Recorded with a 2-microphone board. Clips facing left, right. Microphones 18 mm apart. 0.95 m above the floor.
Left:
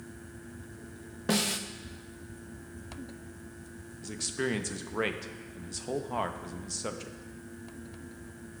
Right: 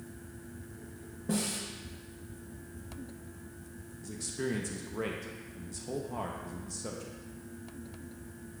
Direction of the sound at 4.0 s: 35° left (ahead or behind).